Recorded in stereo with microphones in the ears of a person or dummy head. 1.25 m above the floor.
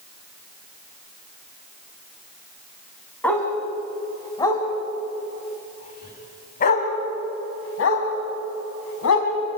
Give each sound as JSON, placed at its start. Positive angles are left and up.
{"t": 3.2, "sound": "a dog barking", "side_deg": 5, "distance_m": 5.0}